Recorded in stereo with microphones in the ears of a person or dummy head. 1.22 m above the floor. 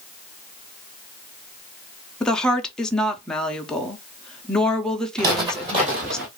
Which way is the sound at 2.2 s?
5° left (ahead or behind).